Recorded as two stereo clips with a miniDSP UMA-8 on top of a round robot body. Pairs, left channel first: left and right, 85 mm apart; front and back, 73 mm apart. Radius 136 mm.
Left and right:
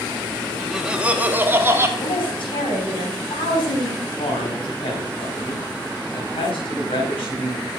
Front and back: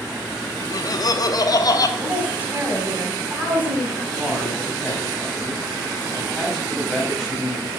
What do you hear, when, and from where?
0.6 s laughter: straight ahead, 0.9 m; by 1.9 s 30° right, 1.5 m
2.0 s a woman speaking: 110° left, 3.5 m
4.0 s a man speaking: 90° left, 4 m